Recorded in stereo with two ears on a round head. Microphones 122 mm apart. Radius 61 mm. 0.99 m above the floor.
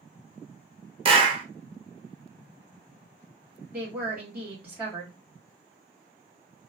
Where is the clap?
35° right (ahead or behind), 0.7 m.